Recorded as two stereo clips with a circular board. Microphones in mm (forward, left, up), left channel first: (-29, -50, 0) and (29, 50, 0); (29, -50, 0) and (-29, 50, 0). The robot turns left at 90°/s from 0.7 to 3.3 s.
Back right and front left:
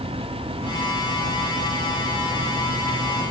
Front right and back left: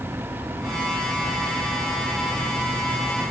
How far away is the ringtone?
No ringtone in this recording.